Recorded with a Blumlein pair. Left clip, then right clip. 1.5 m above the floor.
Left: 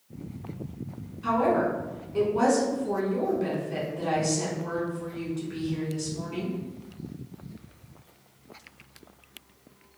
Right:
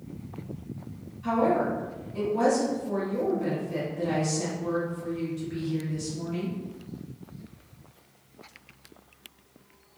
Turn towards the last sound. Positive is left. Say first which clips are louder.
# left 1 dB
turn(degrees=60)